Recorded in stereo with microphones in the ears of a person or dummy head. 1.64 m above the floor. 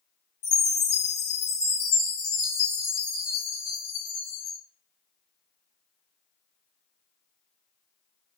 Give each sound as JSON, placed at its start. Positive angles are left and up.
{"t": 0.4, "sound": "a chime", "side_deg": 70, "distance_m": 2.0}